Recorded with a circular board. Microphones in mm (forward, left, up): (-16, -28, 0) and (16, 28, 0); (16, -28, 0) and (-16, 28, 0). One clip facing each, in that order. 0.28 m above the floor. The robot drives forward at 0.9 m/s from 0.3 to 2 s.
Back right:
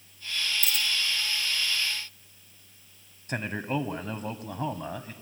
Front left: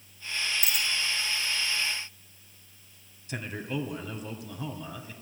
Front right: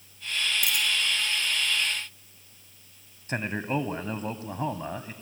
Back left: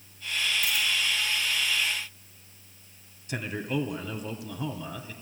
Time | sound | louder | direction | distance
0.6 | a dropped coin | even, even | 60° right | 2.5 m
3.3 | a man speaking | back right 4 dB, front right 2 dB | 95° right | 2 m